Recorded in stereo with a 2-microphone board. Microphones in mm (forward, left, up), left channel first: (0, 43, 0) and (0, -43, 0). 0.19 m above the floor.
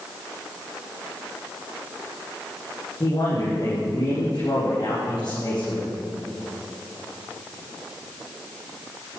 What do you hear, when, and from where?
3.0 s a man speaking: 45° left (ahead or behind), 7 m